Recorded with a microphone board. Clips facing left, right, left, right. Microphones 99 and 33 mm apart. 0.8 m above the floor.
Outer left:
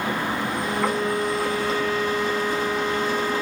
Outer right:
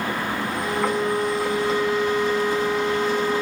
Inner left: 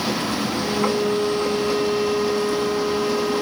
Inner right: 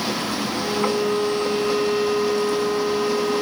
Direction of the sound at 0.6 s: 20° right (ahead or behind).